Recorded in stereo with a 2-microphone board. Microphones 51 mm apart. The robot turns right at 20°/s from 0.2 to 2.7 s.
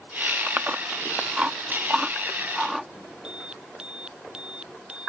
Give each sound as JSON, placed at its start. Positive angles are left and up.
{"t": 0.5, "sound": "chewing", "side_deg": -35}
{"t": 3.2, "sound": "an alarm", "side_deg": -20}